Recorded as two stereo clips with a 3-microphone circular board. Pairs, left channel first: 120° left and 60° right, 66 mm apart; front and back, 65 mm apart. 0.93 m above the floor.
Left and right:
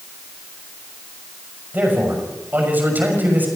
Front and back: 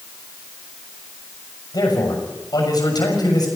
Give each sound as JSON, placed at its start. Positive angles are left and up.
{"t": 1.7, "sound": "a man speaking", "azimuth_deg": 0, "distance_m": 6.5}